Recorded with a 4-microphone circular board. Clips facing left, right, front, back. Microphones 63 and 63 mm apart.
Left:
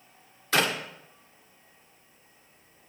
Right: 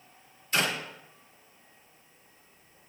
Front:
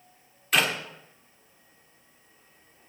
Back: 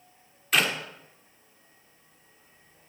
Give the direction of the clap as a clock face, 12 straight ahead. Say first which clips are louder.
Left 3 dB, even; 9 o'clock.